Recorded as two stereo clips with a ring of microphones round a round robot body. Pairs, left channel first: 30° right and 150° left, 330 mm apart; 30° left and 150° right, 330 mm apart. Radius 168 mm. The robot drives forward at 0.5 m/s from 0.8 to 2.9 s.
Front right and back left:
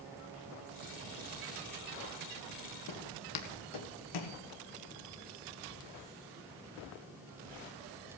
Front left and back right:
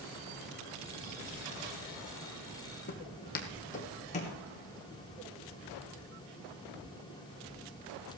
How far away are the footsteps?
About 1.4 m.